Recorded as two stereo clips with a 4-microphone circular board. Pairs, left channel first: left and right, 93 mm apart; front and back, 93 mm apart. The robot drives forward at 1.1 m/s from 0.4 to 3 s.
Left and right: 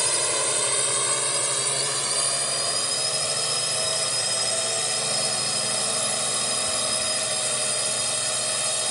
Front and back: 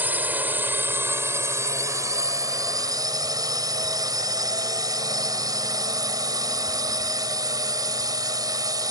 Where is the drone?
175° right; by 8.9 s straight behind.